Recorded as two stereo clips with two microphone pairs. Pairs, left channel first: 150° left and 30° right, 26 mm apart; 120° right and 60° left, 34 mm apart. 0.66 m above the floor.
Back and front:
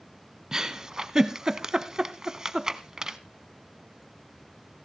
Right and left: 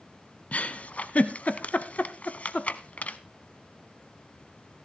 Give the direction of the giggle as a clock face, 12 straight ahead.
3 o'clock.